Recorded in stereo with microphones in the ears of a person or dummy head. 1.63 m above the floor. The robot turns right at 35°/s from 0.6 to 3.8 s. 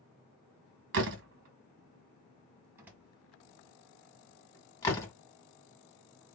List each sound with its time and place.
0.9 s a door slam: 60° right (ahead or behind), 1.4 m; by 5.1 s 15° left (ahead or behind), 1.4 m